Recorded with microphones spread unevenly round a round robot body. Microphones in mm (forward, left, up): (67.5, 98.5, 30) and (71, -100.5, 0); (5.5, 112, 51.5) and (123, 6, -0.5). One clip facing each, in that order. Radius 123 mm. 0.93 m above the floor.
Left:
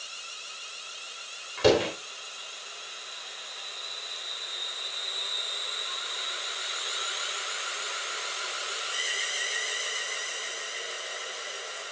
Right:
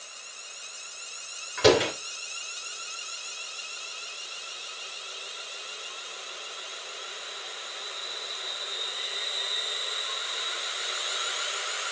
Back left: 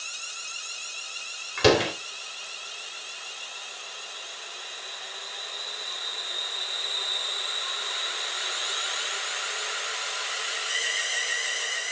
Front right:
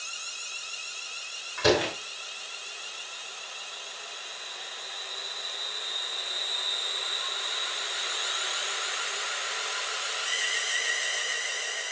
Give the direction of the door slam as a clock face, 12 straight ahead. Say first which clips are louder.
Right 1 dB, back left 3 dB; 6 o'clock.